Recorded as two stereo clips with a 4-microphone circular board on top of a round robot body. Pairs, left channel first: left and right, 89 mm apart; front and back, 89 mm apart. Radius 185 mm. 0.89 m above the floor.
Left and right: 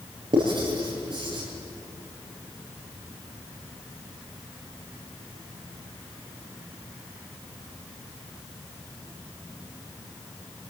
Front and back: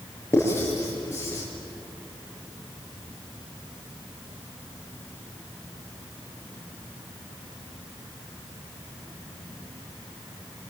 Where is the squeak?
No squeak in this recording.